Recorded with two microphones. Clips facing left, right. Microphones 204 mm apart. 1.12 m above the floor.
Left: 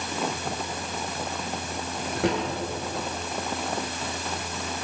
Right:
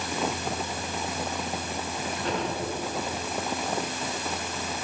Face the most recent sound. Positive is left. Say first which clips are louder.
# left 6 dB
turn(degrees=85)